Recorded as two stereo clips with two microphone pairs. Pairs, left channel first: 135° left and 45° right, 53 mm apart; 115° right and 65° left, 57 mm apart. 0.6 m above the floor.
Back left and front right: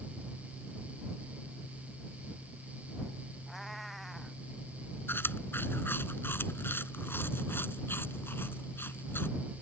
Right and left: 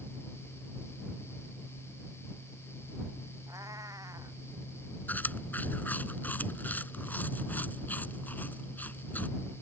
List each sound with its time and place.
3.5 s a cat meowing: 50° left
5.1 s chewing: 175° right